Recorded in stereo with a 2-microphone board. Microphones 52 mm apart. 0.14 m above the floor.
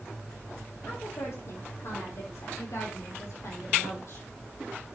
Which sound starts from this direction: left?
A woman speaking, at 0.8 s.